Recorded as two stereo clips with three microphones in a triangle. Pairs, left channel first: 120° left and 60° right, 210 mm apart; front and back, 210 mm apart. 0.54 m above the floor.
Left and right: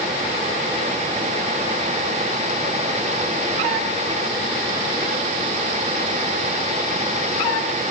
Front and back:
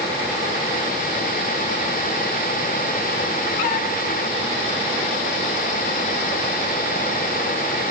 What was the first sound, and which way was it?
Only background noise.